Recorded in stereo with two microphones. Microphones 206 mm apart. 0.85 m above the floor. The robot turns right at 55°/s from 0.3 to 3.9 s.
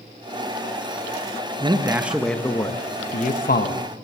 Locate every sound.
1.6 s a man speaking: 35° right, 0.5 m; by 3.9 s 90° left, 0.5 m